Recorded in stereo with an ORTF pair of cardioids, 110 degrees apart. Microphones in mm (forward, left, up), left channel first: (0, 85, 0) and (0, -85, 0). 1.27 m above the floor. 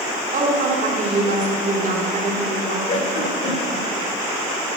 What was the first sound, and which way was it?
A woman speaking, 50° right.